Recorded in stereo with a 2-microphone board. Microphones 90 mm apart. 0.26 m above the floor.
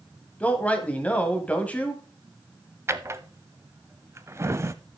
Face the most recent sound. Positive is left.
turn(degrees=-30)  # may be behind; listen again after turning